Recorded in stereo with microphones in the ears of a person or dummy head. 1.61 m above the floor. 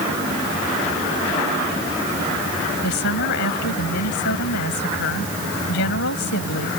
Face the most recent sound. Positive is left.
turn(degrees=70)  # may be behind; listen again after turning